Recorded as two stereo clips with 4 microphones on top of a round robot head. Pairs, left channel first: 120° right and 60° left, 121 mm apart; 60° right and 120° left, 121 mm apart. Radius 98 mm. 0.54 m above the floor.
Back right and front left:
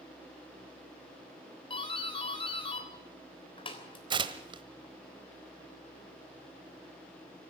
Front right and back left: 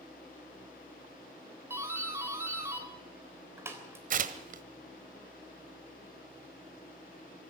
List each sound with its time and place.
1.7 s a doorbell: 170° right, 3.5 m
4.1 s tearing paper: 110° left, 1.2 m